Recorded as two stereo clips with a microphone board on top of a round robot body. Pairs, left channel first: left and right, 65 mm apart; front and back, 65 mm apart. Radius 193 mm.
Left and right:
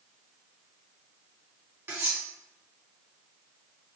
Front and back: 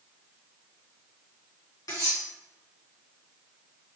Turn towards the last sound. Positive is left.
turn(degrees=-30)